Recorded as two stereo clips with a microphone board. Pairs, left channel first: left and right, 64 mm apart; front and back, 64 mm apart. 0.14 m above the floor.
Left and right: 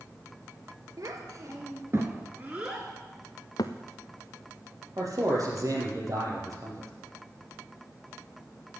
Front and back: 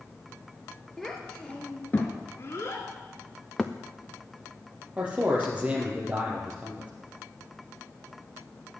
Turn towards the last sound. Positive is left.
turn(degrees=-115)